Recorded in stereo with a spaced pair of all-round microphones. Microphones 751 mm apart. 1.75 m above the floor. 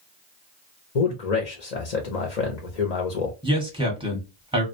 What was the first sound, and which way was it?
A man speaking, 60° left (ahead or behind).